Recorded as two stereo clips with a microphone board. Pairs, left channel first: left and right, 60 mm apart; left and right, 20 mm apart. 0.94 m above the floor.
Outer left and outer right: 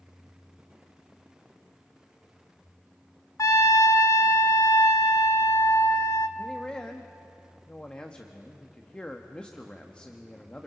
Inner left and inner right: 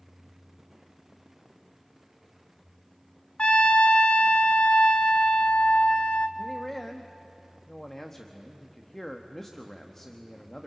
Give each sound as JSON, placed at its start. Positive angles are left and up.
{"t": 3.4, "sound": "a trumpet", "side_deg": 60, "distance_m": 0.7}
{"t": 6.4, "sound": "a man speaking", "side_deg": 20, "distance_m": 1.0}